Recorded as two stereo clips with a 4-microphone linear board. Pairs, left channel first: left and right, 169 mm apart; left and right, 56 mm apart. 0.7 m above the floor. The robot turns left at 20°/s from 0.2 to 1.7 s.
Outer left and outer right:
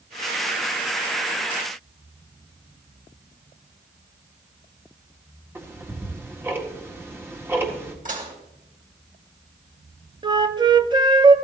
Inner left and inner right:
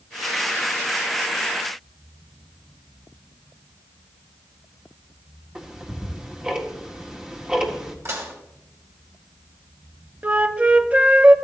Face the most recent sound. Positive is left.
turn(degrees=-25)  # may be behind; listen again after turning